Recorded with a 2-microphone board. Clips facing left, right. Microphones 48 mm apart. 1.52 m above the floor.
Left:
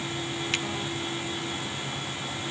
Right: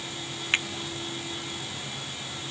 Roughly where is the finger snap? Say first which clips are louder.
Right 5 dB; right.